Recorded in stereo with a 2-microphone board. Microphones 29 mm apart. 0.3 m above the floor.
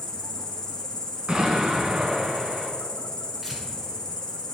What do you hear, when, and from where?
0.0 s an insect: 20° left (ahead or behind), 1.1 m
1.3 s an explosion: 35° right (ahead or behind), 1.2 m
3.4 s tearing paper: 10° right (ahead or behind), 1.5 m